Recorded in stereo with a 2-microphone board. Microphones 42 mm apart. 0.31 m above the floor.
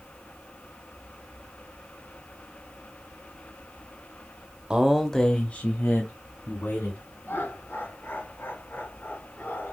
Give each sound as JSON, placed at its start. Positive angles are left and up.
{"t": 4.7, "sound": "a man speaking", "side_deg": -20, "distance_m": 0.9}
{"t": 7.2, "sound": "laughter", "side_deg": 70, "distance_m": 3.0}